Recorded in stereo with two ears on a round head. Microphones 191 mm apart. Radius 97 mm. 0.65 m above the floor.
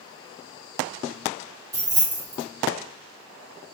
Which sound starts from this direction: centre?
Keys jangling, at 1.7 s.